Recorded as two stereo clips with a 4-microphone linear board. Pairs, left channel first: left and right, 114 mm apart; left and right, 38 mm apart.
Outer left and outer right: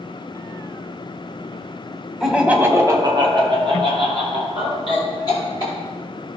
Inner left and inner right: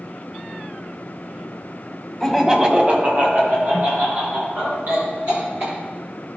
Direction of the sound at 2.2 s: Centre (ahead or behind).